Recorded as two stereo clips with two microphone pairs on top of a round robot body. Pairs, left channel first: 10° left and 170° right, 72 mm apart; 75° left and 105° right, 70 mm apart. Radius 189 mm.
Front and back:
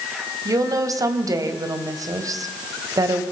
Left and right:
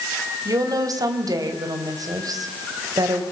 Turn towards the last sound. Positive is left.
turn(degrees=-135)